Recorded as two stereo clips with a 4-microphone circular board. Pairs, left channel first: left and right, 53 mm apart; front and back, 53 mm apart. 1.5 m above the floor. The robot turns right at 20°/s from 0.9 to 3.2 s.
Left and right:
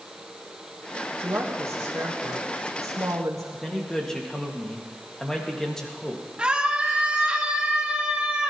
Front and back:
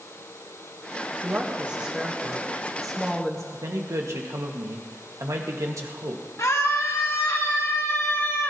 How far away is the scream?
About 2 m.